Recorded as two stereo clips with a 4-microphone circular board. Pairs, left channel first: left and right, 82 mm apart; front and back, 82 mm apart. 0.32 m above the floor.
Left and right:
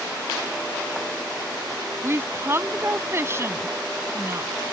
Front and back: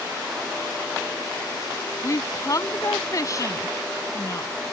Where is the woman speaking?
40° right.